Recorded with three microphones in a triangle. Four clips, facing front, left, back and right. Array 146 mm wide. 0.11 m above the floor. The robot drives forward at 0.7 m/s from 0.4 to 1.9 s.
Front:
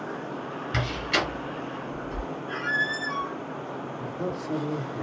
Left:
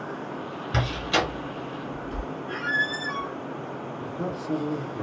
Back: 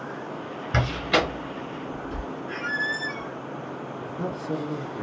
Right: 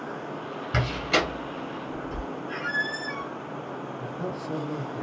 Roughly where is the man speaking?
Behind left.